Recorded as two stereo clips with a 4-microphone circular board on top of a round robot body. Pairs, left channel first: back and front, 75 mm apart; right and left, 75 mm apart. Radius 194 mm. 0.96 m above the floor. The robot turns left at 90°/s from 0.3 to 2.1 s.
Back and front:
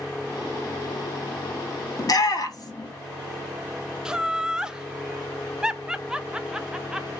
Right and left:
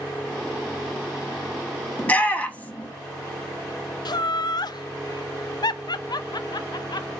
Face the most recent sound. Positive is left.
turn(degrees=-80)